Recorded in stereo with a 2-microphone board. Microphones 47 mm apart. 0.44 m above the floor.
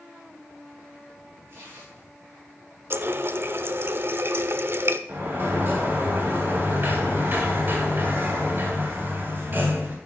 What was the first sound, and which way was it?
Tearing paper, 55° right (ahead or behind).